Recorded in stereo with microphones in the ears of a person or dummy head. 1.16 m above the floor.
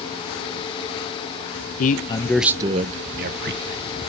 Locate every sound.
1.8 s a man speaking: 45° left (ahead or behind), 0.8 m; by 3.9 s 60° right (ahead or behind), 1.6 m